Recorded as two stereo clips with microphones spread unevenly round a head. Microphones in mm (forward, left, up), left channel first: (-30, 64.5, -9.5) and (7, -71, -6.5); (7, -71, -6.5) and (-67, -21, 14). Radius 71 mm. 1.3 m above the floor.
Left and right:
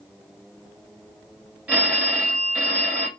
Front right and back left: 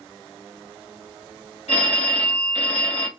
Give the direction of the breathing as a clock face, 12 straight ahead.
No breathing in this recording.